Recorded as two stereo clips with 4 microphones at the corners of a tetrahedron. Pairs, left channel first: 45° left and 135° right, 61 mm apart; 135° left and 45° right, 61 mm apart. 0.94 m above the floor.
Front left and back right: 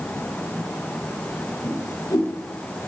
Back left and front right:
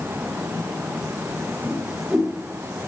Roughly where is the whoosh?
Ahead left.